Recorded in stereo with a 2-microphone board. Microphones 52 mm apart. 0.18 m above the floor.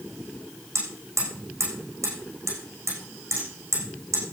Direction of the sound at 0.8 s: 75° right (ahead or behind).